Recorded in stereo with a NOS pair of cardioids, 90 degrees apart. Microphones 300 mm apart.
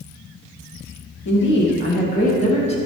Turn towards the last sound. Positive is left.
turn(degrees=20)